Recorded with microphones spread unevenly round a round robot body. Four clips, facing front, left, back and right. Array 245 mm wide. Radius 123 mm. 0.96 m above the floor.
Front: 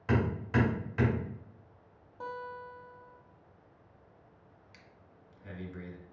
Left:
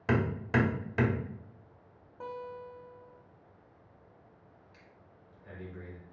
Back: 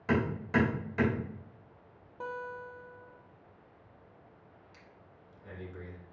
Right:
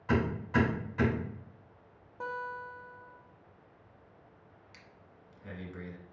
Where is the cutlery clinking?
I don't hear cutlery clinking.